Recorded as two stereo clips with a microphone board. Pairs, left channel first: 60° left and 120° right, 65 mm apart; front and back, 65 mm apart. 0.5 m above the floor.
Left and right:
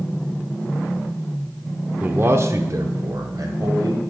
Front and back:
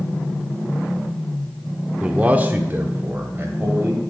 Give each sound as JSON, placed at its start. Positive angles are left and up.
{"t": 2.0, "sound": "a man speaking", "azimuth_deg": -130, "distance_m": 0.8}